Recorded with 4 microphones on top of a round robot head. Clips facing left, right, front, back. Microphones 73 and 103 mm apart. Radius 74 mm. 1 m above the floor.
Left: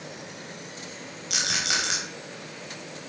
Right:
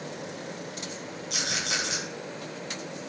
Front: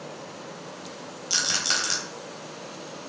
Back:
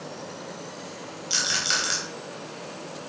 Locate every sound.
1.3 s a rattle: 45° left, 4 m